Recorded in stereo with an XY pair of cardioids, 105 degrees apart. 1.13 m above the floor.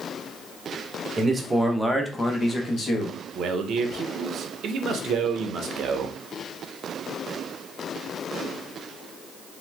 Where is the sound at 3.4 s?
65° right, 0.7 m.